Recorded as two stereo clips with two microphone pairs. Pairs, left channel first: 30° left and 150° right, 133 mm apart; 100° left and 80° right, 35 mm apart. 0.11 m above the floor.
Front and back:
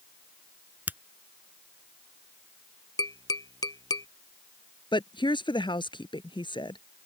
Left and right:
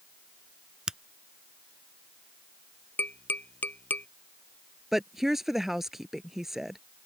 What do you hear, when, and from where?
0.9 s a finger snap: 100° right
3.0 s tapping: 90° left
4.9 s a woman speaking: straight ahead